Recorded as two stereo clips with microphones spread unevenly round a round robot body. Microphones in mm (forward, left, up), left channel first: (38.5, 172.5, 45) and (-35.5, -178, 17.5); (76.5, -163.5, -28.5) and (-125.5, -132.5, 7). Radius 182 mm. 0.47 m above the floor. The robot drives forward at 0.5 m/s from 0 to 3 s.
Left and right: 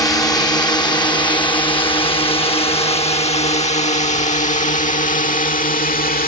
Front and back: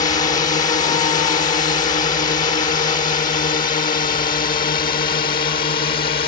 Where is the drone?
Straight ahead; by 6.3 s 20° left.